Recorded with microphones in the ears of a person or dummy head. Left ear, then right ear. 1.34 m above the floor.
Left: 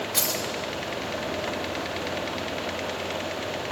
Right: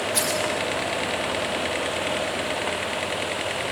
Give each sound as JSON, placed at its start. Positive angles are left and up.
{"t": 0.1, "sound": "keys jangling", "side_deg": 0, "distance_m": 4.0}